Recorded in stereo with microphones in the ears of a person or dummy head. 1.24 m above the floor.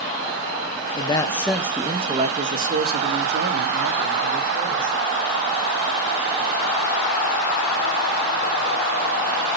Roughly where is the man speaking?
Left.